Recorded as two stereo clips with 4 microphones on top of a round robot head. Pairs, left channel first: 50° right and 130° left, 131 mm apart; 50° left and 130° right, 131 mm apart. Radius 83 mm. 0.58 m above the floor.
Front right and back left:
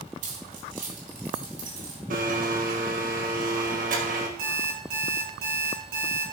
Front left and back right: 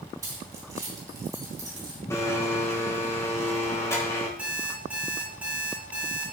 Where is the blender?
120° left, 2.0 m.